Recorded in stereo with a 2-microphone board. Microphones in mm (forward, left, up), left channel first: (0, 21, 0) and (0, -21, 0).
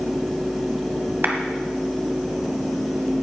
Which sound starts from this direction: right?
A clap, at 1.2 s.